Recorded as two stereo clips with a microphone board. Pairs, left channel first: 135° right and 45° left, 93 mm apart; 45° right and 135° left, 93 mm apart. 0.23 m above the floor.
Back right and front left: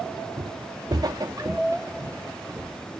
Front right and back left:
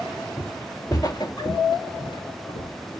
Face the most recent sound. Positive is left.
turn(degrees=-25)